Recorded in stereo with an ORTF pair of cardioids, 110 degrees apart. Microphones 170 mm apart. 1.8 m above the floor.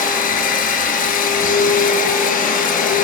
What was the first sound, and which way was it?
A machine running, 55° left.